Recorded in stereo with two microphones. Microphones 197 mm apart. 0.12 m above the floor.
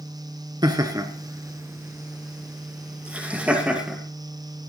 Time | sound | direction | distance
0.6 | laughter | 20° right (ahead or behind) | 1.4 m